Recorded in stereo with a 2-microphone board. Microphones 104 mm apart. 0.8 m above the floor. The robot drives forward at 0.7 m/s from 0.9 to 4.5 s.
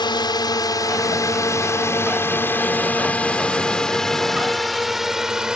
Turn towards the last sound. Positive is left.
turn(degrees=-5)  # may be behind; listen again after turning